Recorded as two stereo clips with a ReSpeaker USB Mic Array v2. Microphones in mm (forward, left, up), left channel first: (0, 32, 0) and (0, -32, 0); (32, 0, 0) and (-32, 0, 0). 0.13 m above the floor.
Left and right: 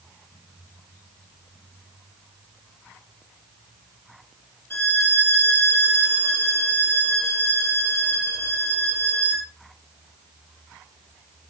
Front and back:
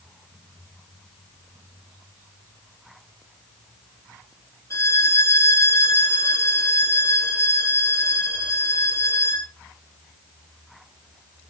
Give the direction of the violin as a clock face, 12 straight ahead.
11 o'clock.